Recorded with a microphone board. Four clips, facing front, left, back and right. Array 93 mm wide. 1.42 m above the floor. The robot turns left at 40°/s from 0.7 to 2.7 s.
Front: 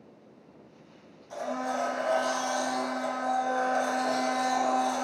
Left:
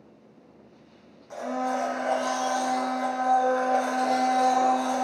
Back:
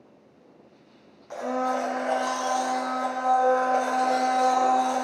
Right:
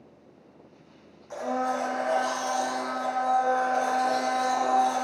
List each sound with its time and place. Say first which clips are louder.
1.3 s a blender: even, back 5 dB; 175° right, 0.6 m; by 5.0 s 130° left, 0.6 m